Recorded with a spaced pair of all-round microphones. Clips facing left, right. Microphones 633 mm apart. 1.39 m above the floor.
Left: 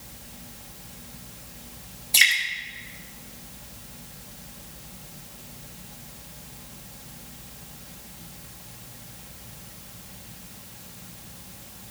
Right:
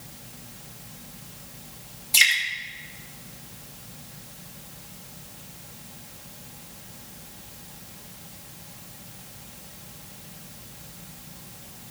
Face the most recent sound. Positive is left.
turn(degrees=-35)  # may be behind; listen again after turning